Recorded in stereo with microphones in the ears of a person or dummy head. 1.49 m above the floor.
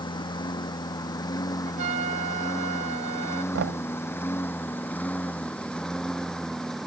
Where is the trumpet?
40° right (ahead or behind).